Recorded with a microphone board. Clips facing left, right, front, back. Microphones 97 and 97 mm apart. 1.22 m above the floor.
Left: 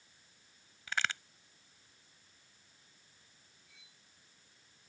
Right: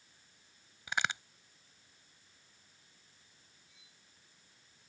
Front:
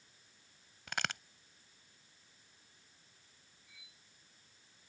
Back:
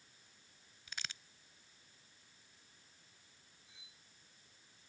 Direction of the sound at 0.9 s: 15° right.